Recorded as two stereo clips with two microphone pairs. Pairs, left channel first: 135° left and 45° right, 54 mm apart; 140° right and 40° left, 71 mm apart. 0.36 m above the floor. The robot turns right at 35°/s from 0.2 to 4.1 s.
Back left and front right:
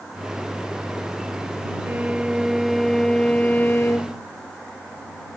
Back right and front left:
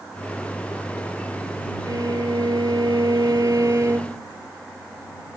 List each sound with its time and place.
1.9 s a violin: 15° left; by 4.2 s 95° left